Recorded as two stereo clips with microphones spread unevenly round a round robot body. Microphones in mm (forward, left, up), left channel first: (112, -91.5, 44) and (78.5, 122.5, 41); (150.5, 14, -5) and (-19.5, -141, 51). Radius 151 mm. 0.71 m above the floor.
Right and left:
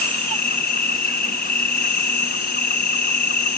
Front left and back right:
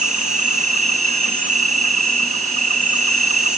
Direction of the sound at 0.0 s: 80° right.